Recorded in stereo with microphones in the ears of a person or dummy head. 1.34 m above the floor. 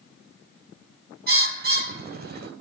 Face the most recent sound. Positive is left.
turn(degrees=-45)  # may be behind; listen again after turning